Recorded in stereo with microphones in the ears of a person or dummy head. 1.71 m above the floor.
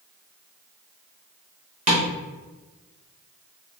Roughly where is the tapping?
Right.